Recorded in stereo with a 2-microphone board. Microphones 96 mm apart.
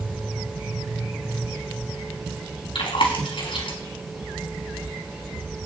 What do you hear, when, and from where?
2.8 s chewing: 65° left (ahead or behind), 4 m